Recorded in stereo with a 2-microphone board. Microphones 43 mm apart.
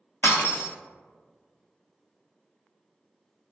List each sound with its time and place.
0.2 s breaking glass: 65° left (ahead or behind), 0.7 m